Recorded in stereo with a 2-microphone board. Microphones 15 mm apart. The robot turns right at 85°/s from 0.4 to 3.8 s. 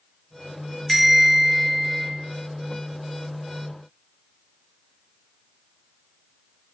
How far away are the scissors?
No scissors in this recording.